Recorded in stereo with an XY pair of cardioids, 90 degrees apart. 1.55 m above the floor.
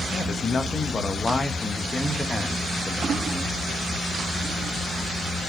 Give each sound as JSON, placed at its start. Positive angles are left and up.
{"t": 0.1, "sound": "a man speaking", "azimuth_deg": 45, "distance_m": 2.0}